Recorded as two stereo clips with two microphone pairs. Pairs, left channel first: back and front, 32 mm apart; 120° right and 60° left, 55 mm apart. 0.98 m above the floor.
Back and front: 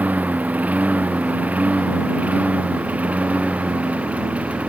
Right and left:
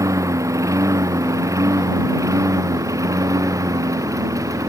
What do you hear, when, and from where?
0.0 s a lawn mower: 40° left; by 4.7 s 45° left